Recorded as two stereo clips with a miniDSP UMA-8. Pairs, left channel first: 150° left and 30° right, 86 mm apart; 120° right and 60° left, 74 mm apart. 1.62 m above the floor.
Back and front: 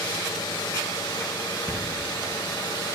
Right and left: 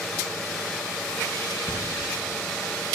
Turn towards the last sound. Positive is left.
turn(degrees=-80)